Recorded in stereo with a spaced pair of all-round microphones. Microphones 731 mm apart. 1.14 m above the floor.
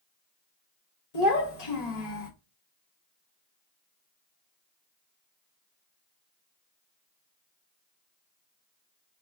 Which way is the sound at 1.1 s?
60° left (ahead or behind).